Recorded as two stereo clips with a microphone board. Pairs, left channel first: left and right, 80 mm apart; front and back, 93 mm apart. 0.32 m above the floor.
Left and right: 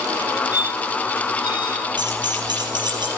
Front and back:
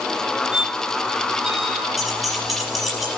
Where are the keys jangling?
95° right, 5 m.